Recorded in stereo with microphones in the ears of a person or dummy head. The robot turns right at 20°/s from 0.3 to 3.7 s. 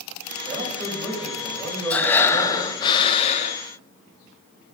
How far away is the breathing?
About 1.0 m.